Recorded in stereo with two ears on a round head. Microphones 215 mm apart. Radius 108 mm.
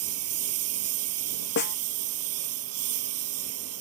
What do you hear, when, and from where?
0.0 s a lawn mower: 65° right (ahead or behind)
1.6 s a snare drum: 45° left (ahead or behind)